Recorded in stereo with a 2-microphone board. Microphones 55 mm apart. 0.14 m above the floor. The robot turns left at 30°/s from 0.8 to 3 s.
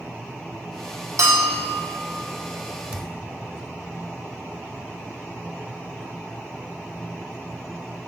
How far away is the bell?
About 1.3 m.